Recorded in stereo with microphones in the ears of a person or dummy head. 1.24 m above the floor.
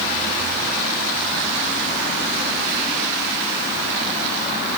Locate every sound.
Only background noise.